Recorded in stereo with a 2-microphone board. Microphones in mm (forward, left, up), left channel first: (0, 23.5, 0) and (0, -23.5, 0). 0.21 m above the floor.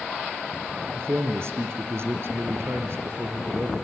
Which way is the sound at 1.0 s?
60° right (ahead or behind).